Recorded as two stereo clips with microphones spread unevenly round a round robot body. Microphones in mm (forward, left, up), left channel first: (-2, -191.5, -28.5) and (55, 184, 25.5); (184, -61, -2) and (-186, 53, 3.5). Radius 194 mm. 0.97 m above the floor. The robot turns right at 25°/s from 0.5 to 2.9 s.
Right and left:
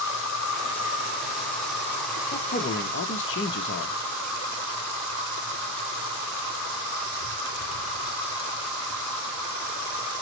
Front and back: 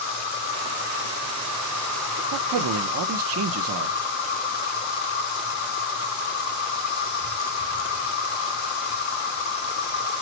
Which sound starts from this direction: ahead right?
An insect, at 0.0 s.